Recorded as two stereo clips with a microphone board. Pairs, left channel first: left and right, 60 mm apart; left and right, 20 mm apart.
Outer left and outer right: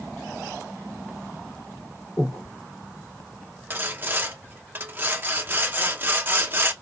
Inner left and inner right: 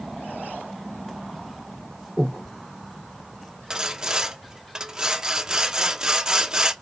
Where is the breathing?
50° left (ahead or behind), 1.9 m.